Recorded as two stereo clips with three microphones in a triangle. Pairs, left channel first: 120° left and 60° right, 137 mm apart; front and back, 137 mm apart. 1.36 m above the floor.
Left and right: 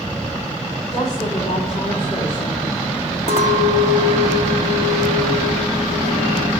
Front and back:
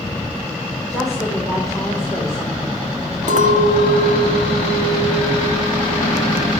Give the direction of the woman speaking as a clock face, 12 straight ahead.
9 o'clock.